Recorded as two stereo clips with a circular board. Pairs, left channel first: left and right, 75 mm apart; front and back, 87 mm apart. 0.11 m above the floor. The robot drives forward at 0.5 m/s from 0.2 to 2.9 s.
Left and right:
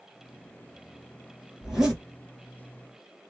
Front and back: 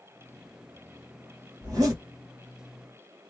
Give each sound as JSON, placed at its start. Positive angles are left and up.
{"t": 1.6, "sound": "a zipper", "azimuth_deg": -175, "distance_m": 2.0}